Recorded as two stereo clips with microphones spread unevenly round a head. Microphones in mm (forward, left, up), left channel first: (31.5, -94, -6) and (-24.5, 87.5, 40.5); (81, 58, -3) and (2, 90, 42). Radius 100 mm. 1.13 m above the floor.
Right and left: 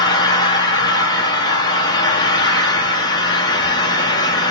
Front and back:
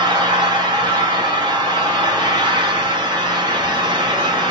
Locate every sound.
0.0 s an engine running: 145° right, 1.1 m